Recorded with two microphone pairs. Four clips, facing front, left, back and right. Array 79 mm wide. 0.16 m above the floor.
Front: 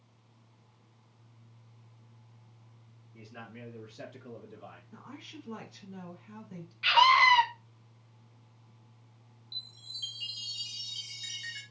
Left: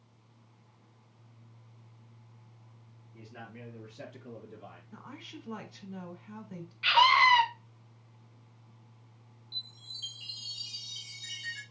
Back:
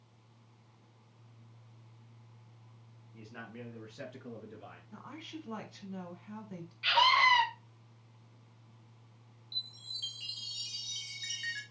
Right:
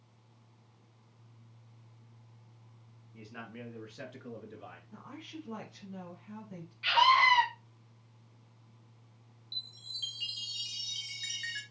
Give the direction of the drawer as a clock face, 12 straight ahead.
I don't hear a drawer.